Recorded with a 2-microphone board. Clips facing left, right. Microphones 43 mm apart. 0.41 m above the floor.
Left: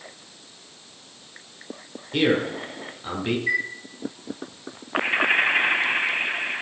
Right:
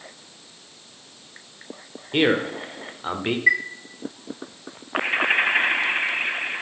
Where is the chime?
60° right (ahead or behind), 1.7 m.